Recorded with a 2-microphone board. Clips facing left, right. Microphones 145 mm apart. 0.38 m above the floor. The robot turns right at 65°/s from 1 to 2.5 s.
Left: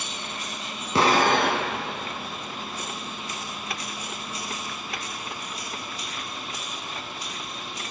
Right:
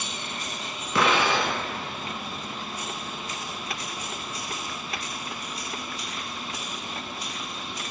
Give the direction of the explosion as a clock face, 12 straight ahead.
11 o'clock.